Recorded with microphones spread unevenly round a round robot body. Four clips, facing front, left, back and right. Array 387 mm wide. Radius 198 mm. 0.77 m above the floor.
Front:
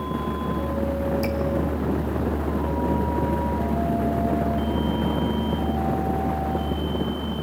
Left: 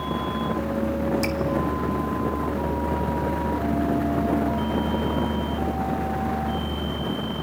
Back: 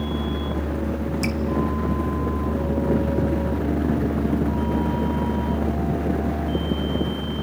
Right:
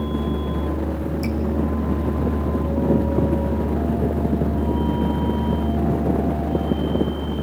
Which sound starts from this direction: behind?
Dripping, at 1.2 s.